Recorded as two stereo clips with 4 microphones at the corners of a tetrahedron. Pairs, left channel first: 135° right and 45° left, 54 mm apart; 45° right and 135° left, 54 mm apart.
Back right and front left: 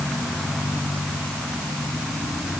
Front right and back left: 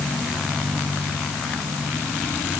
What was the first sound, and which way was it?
Only background noise.